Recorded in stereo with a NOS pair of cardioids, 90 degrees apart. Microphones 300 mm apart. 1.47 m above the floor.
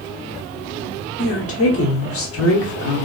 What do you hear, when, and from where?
1.2 s a woman speaking: 50° left, 1.0 m